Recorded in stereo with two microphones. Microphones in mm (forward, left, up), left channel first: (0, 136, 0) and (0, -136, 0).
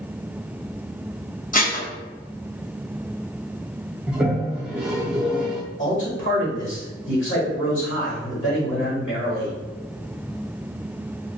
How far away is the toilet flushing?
About 0.6 m.